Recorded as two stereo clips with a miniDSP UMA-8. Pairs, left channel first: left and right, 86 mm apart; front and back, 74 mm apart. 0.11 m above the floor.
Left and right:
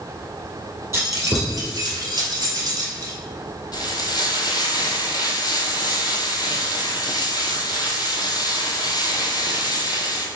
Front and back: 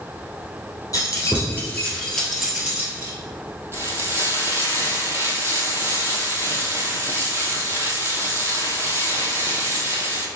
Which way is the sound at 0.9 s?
40° right.